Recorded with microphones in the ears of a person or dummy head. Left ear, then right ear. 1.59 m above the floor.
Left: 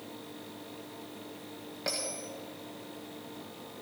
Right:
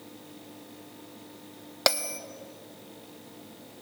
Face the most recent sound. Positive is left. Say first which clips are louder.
# right 9 dB
turn(degrees=-40)  # may be behind; listen again after turning